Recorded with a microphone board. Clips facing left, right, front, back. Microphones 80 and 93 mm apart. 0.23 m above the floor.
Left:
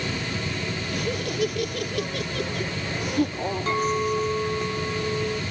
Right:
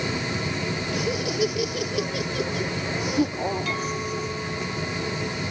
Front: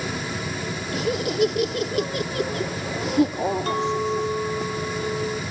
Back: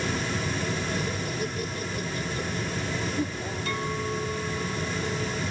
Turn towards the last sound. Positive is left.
turn(degrees=40)